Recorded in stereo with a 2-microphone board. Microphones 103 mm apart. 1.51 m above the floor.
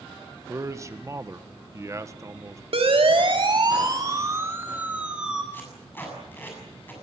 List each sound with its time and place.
0.5 s a man speaking: 30° right (ahead or behind), 1.5 m
2.7 s a siren: 65° right (ahead or behind), 2.5 m; by 5.4 s 5° right (ahead or behind), 3 m
5.5 s tape being pulled: 20° left (ahead or behind), 7 m